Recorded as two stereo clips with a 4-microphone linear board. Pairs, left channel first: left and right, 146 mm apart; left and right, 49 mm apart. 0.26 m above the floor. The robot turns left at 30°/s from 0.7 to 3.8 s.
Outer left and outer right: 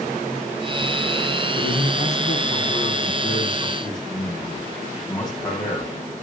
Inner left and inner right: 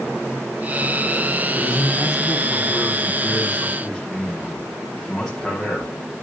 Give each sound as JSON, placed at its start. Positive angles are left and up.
{"t": 1.6, "sound": "a man speaking", "azimuth_deg": 70, "distance_m": 9.5}